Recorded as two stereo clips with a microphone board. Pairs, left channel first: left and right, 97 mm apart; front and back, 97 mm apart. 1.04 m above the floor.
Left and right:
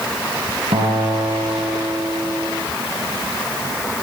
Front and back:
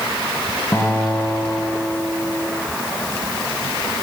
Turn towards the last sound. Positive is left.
turn(degrees=-65)